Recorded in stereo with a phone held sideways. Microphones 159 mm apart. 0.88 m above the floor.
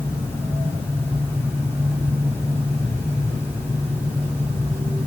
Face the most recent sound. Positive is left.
turn(degrees=15)  # may be behind; listen again after turning